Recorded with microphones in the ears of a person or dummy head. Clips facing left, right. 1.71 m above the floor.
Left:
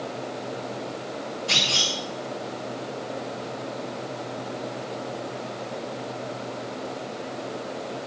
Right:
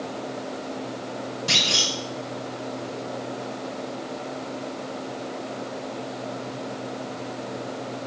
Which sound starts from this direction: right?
A clunk, at 1.5 s.